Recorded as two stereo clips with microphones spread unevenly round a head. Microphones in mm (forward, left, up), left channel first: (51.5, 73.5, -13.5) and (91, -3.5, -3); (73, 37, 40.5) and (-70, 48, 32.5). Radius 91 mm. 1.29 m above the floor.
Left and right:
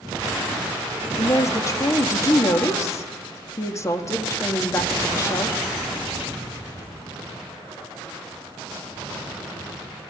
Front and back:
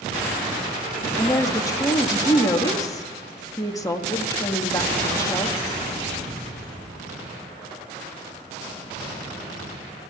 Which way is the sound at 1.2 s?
60° left.